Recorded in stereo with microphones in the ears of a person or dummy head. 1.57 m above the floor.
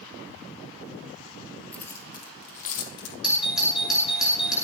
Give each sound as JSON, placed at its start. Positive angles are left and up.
{"t": 1.7, "sound": "keys jangling", "side_deg": 10, "distance_m": 2.5}
{"t": 3.2, "sound": "a doorbell", "side_deg": -5, "distance_m": 5.5}